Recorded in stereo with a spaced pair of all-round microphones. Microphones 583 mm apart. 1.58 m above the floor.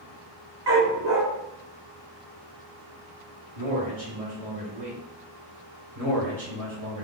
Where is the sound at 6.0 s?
85° right, 1.9 m.